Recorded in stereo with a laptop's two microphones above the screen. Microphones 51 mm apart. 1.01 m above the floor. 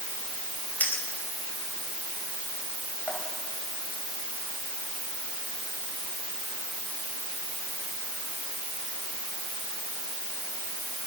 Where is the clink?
30° left (ahead or behind), 4.5 m.